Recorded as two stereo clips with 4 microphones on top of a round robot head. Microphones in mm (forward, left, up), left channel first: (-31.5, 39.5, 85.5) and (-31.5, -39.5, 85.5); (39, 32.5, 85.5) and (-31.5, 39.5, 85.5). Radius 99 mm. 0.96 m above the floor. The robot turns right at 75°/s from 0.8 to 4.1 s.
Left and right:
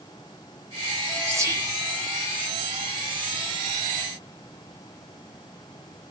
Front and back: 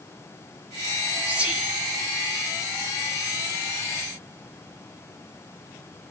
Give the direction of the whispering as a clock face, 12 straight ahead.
4 o'clock.